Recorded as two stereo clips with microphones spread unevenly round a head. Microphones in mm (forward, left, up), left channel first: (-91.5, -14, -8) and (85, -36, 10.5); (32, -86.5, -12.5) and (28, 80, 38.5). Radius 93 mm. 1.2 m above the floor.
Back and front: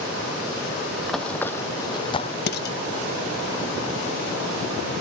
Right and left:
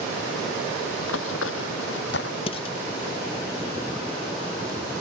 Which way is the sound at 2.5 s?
155° right.